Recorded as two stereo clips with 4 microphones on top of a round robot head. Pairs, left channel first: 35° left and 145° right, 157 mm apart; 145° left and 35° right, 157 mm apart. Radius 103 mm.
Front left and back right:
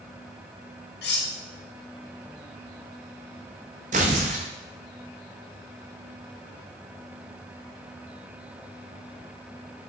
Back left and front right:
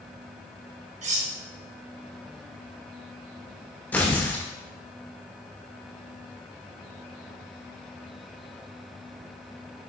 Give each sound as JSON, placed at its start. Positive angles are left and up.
{"t": 1.0, "sound": "cutlery clinking", "azimuth_deg": 10, "distance_m": 1.1}
{"t": 3.9, "sound": "tearing paper", "azimuth_deg": -140, "distance_m": 0.7}